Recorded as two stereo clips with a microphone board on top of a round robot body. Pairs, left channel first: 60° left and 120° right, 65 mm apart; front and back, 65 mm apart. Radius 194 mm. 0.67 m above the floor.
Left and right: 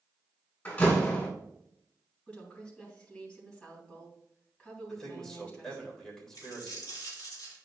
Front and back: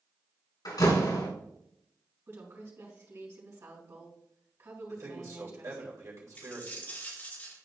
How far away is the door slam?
About 3.5 m.